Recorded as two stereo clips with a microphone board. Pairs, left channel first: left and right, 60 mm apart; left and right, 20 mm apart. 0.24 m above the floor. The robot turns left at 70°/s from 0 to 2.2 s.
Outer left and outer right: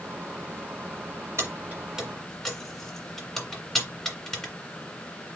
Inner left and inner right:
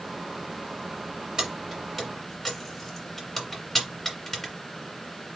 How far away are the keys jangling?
About 1.8 m.